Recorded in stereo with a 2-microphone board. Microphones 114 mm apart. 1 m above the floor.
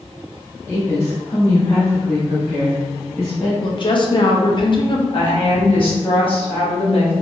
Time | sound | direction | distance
0.7 | a woman speaking | 25° left (ahead or behind) | 1.0 m
3.6 | a woman speaking | 45° left (ahead or behind) | 0.6 m
5.1 | a woman speaking | 50° left (ahead or behind) | 1.2 m